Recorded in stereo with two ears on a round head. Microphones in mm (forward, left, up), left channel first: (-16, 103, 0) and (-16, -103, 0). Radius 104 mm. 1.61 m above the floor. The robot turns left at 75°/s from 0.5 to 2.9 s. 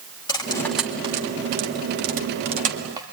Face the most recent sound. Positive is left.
turn(degrees=-20)  # may be behind; listen again after turning